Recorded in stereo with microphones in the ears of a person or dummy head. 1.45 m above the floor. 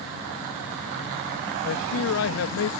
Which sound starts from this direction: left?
A man speaking, at 1.6 s.